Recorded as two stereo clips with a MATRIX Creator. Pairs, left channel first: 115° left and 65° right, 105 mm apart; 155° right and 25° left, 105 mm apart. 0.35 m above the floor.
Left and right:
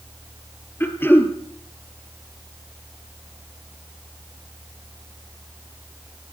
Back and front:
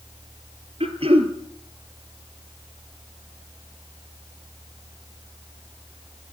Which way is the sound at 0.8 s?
45° left.